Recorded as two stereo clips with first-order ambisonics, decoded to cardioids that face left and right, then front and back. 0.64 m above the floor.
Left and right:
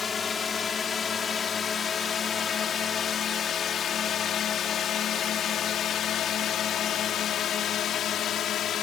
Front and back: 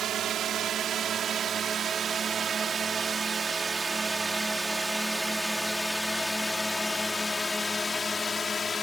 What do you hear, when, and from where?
0.0 s a drone: 150° left; by 8.8 s 60° left